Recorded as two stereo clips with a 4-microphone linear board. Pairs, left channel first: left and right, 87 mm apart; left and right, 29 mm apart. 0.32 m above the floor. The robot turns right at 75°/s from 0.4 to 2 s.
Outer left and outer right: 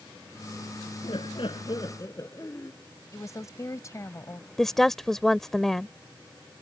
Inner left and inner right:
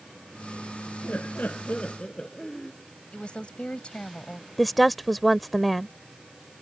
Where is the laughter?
70° left; by 2.7 s 140° left.